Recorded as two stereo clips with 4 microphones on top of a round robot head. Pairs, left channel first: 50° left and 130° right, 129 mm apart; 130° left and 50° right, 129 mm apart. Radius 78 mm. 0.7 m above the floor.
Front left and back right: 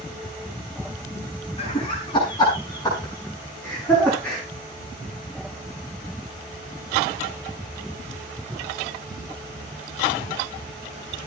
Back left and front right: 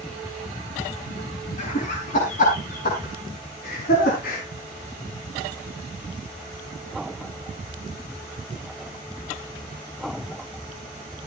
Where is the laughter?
100° left, 6 m; by 4.4 s 135° left, 6 m.